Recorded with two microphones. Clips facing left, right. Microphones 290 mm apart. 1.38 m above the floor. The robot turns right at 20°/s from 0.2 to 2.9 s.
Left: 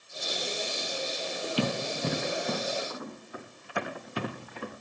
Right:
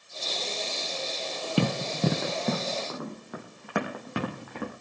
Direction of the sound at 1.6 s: 60° right (ahead or behind).